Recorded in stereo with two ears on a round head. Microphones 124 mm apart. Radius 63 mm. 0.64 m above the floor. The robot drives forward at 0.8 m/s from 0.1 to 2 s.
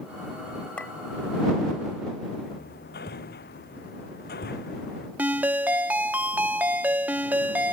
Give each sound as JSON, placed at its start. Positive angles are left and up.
{"t": 0.8, "sound": "a clink", "side_deg": 10}
{"t": 2.5, "sound": "hammering", "side_deg": 75}
{"t": 5.2, "sound": "a ringtone", "side_deg": -10}